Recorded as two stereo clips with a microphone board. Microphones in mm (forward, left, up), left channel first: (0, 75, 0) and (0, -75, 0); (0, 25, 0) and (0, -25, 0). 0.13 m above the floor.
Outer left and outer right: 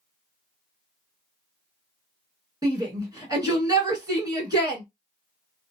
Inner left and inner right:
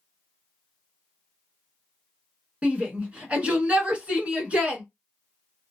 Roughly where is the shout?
Right.